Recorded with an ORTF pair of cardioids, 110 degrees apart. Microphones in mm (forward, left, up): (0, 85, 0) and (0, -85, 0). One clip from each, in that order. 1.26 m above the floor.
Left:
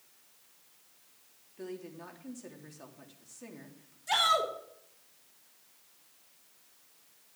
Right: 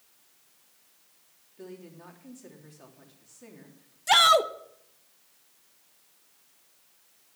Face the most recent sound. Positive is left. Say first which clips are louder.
# right 8 dB
turn(degrees=-55)